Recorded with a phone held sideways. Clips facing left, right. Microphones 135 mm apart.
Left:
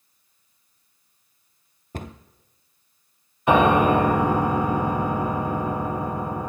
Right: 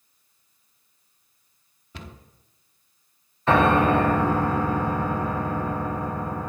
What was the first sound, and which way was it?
A cupboard door, 45° left (ahead or behind).